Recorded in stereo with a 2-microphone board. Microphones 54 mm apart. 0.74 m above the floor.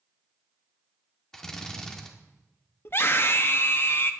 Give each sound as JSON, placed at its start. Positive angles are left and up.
{"t": 1.3, "sound": "a drill", "side_deg": 10, "distance_m": 1.3}
{"t": 2.9, "sound": "a scream", "side_deg": 45, "distance_m": 0.8}